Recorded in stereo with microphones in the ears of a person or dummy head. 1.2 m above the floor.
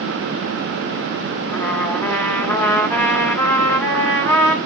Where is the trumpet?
15° left (ahead or behind), 1.7 m.